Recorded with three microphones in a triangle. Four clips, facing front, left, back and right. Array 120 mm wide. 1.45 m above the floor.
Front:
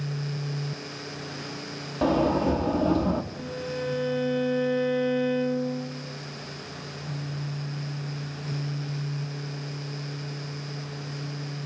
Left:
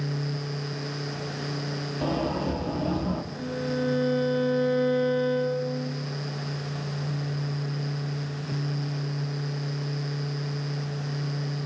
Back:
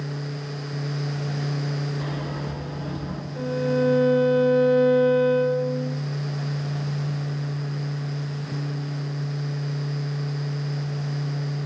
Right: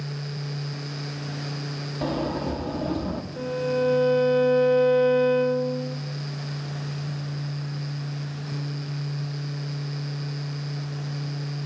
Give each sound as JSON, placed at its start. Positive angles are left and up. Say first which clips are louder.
{"t": 2.0, "sound": "a sliding door", "louder": "right 1 dB, front 9 dB", "azimuth_deg": -10, "distance_m": 3.0}
{"t": 3.4, "sound": "a violin", "louder": "right 7 dB, back 9 dB", "azimuth_deg": -130, "distance_m": 3.0}